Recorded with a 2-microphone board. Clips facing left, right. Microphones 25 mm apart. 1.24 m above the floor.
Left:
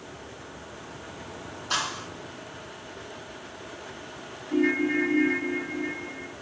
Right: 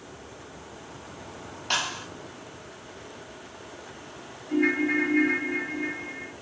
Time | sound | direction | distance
1.7 | a clap | 80° right | 7 m
4.5 | a ringtone | 75° right (ahead or behind) | 3 m